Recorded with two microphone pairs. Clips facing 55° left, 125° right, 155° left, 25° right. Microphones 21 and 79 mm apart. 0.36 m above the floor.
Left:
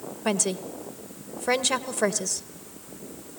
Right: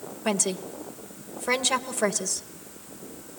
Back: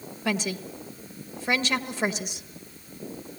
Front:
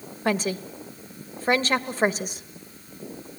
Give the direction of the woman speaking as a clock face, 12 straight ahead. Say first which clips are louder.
Even, front 4 dB; 1 o'clock.